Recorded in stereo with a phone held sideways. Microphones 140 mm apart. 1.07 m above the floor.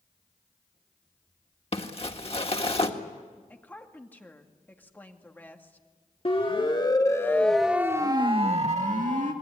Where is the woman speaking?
15° left (ahead or behind), 2 m.